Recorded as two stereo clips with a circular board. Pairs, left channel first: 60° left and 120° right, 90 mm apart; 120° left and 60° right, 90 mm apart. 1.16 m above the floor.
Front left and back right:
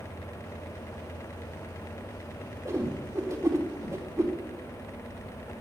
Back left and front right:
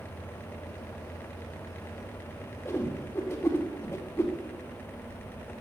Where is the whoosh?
175° right, 2.5 m.